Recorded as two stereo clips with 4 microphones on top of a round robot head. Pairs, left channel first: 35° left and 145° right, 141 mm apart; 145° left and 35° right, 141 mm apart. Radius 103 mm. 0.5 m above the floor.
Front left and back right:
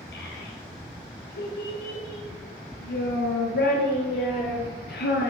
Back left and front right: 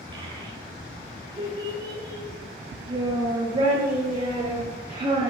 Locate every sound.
0.1 s a child speaking: 25° left, 9.5 m